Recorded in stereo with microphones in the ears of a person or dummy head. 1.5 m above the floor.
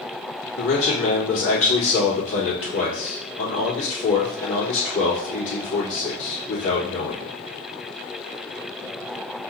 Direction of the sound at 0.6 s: 70° left (ahead or behind).